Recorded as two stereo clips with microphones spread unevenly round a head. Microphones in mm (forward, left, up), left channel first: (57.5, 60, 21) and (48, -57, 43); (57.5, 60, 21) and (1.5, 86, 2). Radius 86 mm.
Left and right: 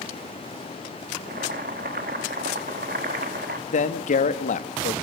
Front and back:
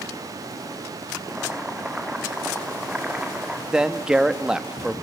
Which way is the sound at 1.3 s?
120° right.